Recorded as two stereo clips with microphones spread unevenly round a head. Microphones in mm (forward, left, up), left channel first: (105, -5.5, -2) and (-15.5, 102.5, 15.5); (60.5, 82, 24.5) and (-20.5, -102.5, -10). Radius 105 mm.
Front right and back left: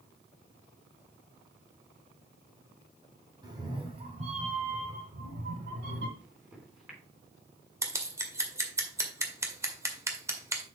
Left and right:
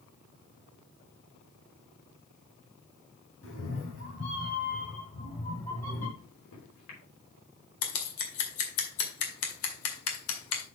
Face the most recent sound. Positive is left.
turn(degrees=65)